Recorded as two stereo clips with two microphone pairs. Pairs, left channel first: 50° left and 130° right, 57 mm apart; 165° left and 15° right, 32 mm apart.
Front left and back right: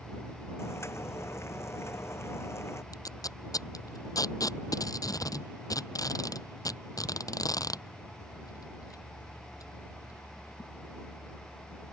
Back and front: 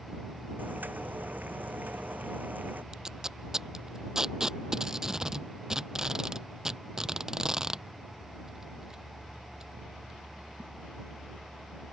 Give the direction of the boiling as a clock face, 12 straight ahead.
12 o'clock.